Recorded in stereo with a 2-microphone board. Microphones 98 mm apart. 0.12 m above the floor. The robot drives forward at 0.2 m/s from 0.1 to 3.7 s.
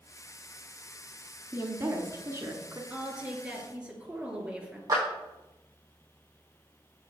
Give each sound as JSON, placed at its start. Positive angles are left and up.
{"t": 1.5, "sound": "a woman speaking", "side_deg": -25, "distance_m": 1.2}
{"t": 2.9, "sound": "a woman speaking", "side_deg": -10, "distance_m": 2.0}
{"t": 4.9, "sound": "a clap", "side_deg": -40, "distance_m": 4.0}